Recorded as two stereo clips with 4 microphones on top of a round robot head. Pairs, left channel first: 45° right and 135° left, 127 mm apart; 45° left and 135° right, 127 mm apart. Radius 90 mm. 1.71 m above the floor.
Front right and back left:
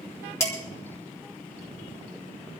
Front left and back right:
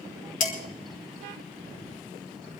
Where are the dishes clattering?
25° left, 3 m.